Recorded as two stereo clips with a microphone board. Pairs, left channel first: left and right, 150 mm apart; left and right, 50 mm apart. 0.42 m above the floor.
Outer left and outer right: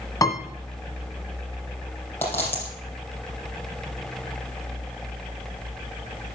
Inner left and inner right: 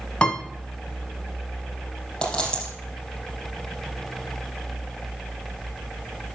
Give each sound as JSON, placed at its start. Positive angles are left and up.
{"t": 0.2, "sound": "a piano", "side_deg": 25, "distance_m": 1.0}
{"t": 2.2, "sound": "a dropped coin", "side_deg": 15, "distance_m": 4.5}